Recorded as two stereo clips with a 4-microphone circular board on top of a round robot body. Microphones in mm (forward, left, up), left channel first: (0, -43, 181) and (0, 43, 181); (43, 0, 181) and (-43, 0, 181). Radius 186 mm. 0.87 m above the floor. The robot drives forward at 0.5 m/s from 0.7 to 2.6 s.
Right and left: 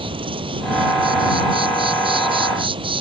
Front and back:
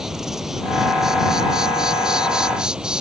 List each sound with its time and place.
0.0 s an insect: 95° left; by 3.0 s 100° left